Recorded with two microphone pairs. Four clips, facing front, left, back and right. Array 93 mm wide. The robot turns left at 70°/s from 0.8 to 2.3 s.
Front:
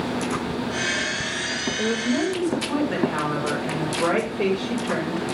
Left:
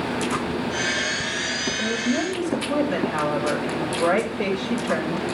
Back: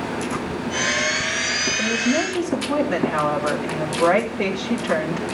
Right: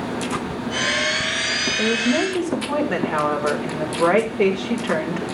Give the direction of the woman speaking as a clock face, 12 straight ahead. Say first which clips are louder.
Right 5 dB, back 1 dB; 2 o'clock.